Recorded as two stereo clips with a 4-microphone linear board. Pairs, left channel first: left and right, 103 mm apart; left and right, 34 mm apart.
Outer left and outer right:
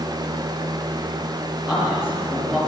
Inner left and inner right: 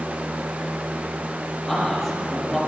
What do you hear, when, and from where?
1.7 s a man speaking: 5° right (ahead or behind), 6.5 m